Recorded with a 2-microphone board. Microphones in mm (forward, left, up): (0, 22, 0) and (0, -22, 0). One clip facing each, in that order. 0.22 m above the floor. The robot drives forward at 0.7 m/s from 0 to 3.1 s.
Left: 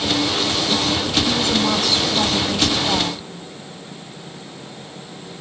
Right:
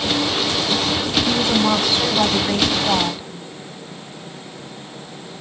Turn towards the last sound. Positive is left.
turn(degrees=-20)  # may be behind; listen again after turning